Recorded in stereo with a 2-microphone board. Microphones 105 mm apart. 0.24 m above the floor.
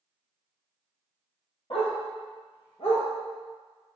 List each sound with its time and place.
1.7 s a dog barking: 60° left (ahead or behind), 1.5 m; by 3.0 s 85° left, 1.0 m